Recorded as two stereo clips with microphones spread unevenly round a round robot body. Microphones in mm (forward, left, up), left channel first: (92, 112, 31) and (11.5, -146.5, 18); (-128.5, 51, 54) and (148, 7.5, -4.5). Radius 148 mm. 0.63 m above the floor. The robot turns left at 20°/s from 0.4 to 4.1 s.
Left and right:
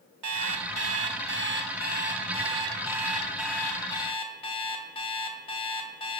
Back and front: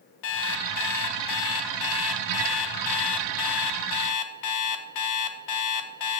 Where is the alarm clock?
140° right, 0.8 m; by 6.2 s 150° left, 0.8 m.